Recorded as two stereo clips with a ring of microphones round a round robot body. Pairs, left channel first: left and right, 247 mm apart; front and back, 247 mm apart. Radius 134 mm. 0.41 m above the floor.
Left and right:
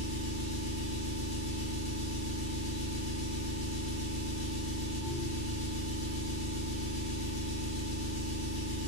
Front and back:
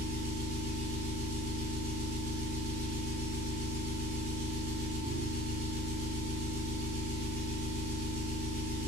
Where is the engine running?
140° left, 1.4 m.